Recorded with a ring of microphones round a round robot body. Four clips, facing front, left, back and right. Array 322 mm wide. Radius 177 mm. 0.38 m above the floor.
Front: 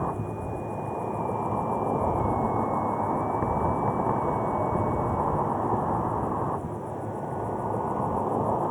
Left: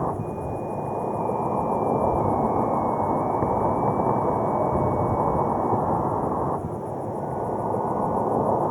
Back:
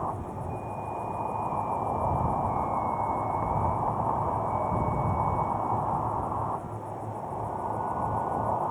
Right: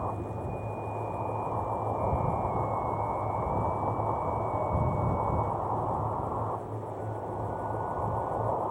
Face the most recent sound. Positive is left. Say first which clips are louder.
# left 7 dB, front 3 dB
turn(degrees=75)